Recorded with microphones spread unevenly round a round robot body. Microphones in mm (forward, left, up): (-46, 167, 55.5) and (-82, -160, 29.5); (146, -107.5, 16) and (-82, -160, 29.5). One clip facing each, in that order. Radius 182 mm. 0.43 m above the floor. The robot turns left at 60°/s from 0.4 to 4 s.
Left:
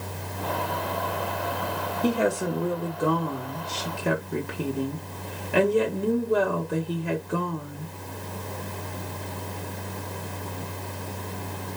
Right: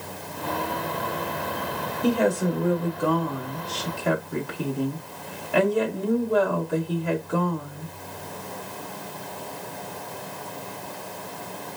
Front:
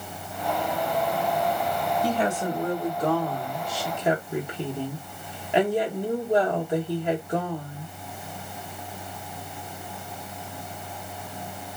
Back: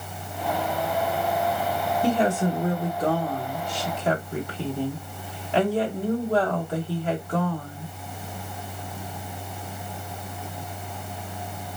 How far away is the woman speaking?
About 0.8 m.